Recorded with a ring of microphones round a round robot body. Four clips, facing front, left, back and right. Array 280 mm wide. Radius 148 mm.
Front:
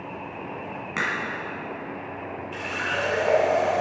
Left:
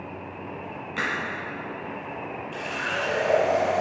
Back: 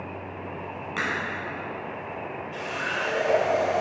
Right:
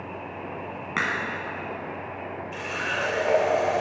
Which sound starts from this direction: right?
A crack, at 1.0 s.